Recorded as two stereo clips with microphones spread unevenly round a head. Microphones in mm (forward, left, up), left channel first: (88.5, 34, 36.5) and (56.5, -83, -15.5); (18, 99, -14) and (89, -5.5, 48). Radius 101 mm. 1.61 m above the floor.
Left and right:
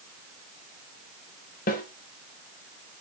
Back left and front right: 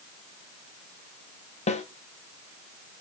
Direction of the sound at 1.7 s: 95° left.